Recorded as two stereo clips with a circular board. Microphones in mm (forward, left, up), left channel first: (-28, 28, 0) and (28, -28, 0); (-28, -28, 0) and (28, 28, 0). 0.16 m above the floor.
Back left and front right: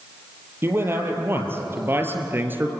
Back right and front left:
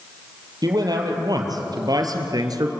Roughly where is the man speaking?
Ahead.